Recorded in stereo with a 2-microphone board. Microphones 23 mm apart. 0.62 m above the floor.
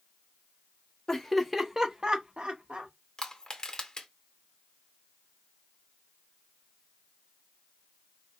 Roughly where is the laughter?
Centre.